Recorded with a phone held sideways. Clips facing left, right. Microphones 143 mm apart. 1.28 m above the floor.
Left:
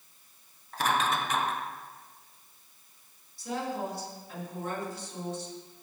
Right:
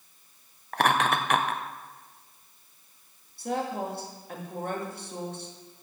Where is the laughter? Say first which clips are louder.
Right 4 dB; 70° right (ahead or behind), 0.8 m.